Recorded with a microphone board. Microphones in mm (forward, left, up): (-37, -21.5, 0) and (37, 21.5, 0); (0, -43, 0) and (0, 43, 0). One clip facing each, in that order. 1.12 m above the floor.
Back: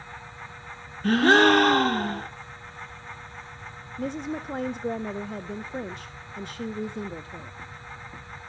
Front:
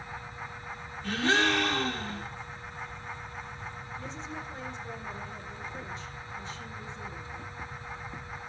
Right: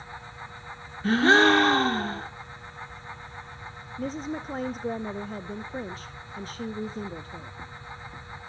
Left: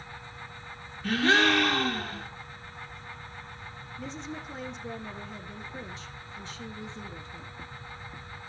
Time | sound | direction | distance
1.0 | a gasp | 140° right | 1.0 m
4.0 | a woman speaking | 130° right | 0.6 m